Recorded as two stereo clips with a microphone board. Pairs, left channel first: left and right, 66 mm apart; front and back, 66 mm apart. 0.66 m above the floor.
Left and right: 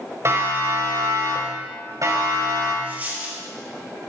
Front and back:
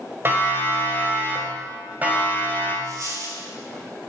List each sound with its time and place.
0.2 s a siren: 130° right, 5 m; by 2.7 s 115° right, 7 m
2.8 s a dropped coin: 155° right, 5 m